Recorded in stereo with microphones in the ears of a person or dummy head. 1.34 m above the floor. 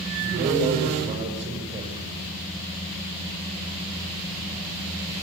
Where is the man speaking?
40° right (ahead or behind), 6.5 m.